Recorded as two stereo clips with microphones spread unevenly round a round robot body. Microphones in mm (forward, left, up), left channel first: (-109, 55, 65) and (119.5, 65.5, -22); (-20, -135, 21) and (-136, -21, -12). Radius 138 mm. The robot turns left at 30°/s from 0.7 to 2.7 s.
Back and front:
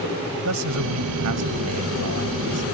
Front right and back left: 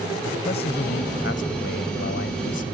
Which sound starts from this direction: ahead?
A man speaking, at 0.5 s.